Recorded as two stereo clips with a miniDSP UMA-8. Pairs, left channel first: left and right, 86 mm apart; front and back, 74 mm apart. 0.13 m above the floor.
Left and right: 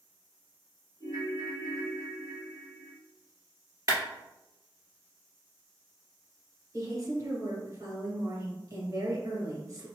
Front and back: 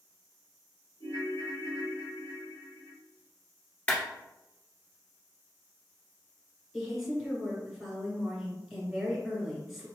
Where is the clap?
60° right, 1.7 m.